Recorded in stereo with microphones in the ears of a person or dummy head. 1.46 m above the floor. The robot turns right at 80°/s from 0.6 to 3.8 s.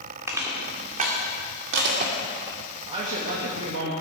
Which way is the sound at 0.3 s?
10° right (ahead or behind).